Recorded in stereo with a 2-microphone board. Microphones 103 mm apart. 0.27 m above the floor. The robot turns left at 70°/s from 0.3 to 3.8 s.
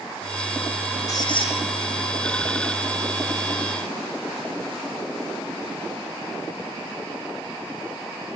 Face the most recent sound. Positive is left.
turn(degrees=-40)